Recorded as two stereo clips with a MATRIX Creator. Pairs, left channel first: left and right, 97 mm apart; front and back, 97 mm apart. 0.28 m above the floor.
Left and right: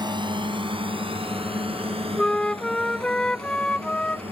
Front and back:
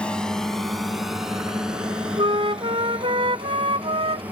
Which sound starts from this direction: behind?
A flute, at 2.2 s.